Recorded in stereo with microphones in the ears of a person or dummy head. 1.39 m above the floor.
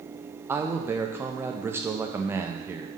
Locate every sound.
0.5 s a man speaking: 10° right (ahead or behind), 0.5 m